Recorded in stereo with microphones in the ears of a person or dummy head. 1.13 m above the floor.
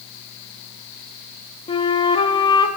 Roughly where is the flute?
Left.